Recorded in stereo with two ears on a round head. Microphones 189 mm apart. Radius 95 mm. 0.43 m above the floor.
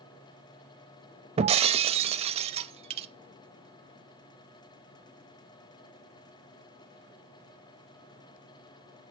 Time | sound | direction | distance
1.4 | breaking glass | 30° right (ahead or behind) | 0.5 m